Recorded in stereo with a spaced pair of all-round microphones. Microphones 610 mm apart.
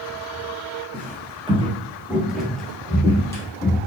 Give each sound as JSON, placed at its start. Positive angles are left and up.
{"t": 0.9, "sound": "footsteps", "side_deg": -15, "distance_m": 1.3}